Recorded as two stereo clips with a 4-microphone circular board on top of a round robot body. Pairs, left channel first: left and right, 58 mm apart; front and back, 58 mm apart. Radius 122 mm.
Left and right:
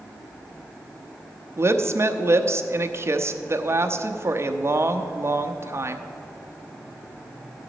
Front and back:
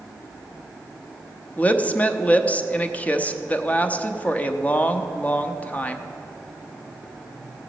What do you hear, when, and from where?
1.6 s a woman speaking: 60° right, 0.9 m